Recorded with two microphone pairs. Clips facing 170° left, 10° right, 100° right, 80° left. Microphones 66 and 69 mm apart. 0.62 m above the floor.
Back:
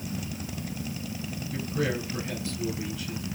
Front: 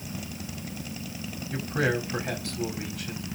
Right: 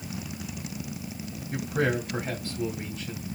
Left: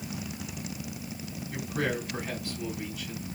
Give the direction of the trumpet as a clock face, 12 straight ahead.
No trumpet in this recording.